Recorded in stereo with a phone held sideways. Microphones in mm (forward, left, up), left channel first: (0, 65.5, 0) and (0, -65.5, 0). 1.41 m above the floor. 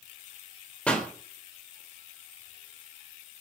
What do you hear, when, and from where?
0.9 s a pop: 5° left (ahead or behind), 3.5 m